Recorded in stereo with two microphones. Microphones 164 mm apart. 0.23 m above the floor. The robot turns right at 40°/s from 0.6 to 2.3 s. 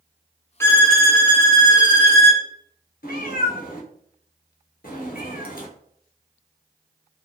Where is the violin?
165° left, 0.8 m; by 2.4 s 130° right, 0.8 m.